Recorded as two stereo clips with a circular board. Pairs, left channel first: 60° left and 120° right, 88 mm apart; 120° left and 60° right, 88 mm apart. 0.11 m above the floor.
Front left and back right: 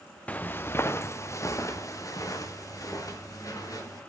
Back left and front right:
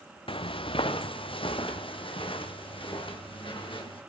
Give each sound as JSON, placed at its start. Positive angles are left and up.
{"t": 0.3, "sound": "footsteps", "azimuth_deg": 135, "distance_m": 0.5}